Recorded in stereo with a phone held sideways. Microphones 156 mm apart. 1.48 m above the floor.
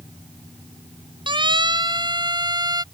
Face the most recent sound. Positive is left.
turn(degrees=-25)  # may be behind; listen again after turning